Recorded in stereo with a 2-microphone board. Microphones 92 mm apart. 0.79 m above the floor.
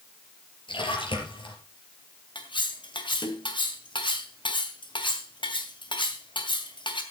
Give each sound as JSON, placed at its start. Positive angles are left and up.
{"t": 0.7, "sound": "a splash", "side_deg": 75, "distance_m": 4.5}
{"t": 2.4, "sound": "cutlery clinking", "side_deg": 70, "distance_m": 2.5}